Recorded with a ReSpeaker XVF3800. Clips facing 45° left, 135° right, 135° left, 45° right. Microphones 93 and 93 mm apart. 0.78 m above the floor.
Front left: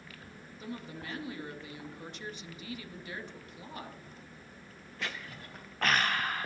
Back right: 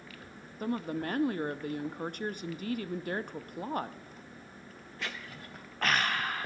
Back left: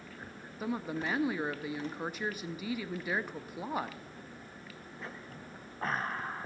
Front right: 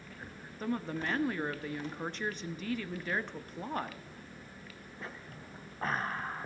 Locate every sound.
0.6 s a woman speaking: 145° right, 0.6 m